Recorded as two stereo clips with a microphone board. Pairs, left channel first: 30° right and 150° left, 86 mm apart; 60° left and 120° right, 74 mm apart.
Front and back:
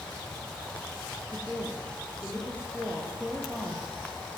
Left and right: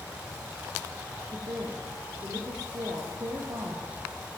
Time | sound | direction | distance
1.3 | a woman speaking | 135° right | 4 m